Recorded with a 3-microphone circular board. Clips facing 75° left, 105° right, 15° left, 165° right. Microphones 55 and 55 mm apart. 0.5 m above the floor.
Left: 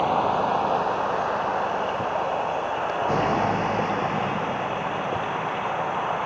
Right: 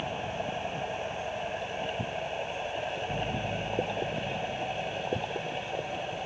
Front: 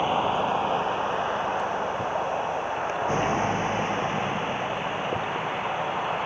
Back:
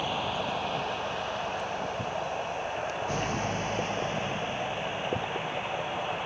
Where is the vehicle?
75° left.